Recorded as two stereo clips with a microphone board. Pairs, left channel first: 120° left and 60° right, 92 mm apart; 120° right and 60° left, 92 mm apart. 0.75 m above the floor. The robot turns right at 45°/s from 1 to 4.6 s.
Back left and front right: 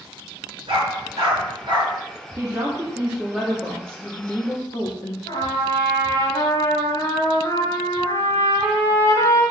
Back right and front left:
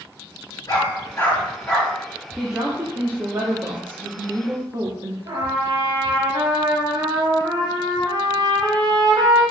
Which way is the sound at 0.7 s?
70° right.